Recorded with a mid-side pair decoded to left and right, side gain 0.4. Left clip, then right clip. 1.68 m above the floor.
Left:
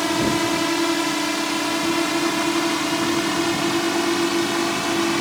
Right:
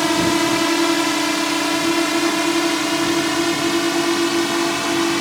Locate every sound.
0.0 s a drone: 30° right; by 5.2 s 25° right